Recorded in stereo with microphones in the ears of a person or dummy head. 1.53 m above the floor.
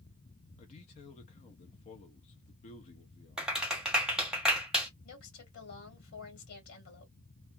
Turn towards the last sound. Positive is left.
turn(degrees=75)  # may be behind; listen again after turning